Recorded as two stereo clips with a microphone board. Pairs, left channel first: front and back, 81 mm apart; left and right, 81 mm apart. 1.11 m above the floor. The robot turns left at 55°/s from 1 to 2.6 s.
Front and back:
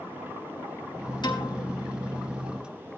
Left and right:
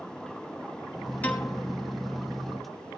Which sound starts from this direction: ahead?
A piano, at 1.2 s.